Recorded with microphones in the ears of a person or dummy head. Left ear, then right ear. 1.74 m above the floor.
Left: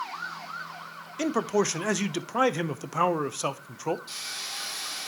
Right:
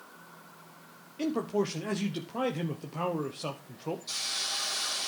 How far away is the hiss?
About 4 m.